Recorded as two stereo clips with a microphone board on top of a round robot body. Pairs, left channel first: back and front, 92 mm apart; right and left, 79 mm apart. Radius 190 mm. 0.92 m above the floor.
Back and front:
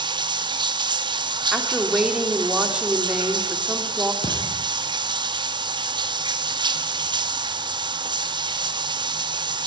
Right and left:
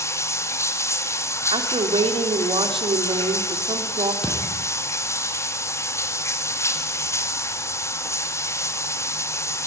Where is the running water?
35° right, 2 m.